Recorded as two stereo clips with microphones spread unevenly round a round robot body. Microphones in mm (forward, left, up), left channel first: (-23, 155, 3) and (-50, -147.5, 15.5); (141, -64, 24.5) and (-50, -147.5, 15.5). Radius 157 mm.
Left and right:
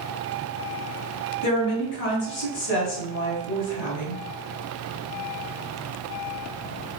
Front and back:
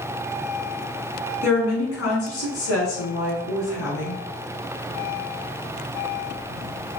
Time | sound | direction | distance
1.4 | a woman speaking | 55° left | 2 m